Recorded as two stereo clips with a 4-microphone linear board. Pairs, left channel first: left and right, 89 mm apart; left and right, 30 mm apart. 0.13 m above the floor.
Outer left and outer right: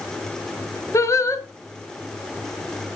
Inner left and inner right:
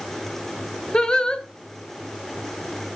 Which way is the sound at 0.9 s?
35° left (ahead or behind).